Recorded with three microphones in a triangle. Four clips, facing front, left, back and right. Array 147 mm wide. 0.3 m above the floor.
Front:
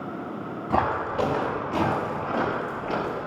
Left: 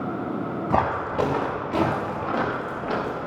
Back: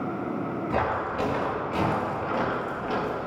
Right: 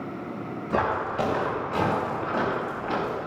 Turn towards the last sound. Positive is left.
turn(degrees=100)